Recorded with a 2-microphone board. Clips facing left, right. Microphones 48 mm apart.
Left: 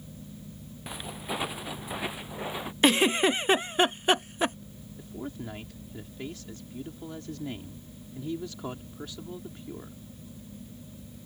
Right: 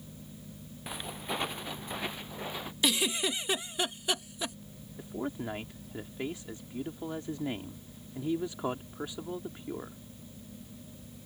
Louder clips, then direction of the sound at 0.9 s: Left 1 dB; centre (ahead or behind).